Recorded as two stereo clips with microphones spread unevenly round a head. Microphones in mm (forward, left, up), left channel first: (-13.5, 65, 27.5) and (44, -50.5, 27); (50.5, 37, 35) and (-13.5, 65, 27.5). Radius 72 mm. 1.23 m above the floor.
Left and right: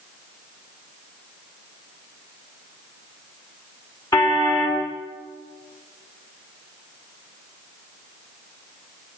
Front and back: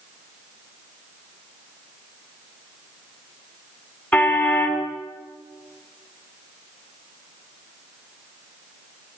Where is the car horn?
50° left, 7.5 m.